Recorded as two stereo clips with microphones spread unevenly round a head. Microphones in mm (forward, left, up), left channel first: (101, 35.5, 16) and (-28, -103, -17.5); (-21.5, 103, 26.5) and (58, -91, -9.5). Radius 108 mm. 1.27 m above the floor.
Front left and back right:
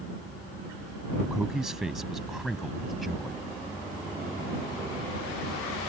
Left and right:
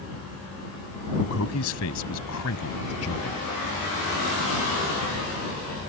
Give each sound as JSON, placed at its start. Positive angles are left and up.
{"t": 1.2, "sound": "a man speaking", "azimuth_deg": 140}